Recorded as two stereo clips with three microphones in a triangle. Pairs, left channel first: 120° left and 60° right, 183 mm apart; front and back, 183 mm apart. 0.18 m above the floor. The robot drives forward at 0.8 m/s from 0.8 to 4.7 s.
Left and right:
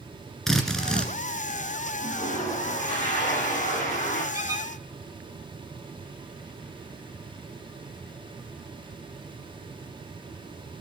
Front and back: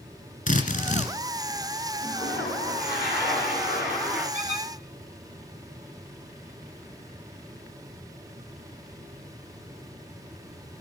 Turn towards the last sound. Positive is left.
turn(degrees=-135)